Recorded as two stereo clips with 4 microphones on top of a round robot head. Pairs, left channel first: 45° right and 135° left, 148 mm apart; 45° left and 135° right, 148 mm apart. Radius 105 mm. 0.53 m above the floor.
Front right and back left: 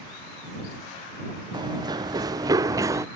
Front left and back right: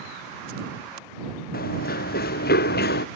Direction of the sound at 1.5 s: 70° left.